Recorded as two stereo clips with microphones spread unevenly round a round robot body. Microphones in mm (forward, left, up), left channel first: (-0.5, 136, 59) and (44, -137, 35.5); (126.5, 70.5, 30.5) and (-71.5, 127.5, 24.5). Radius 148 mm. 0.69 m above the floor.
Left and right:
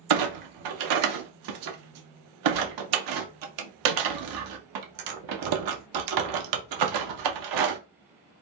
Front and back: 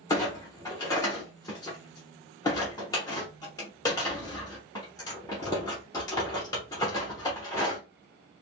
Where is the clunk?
95° right, 0.6 m.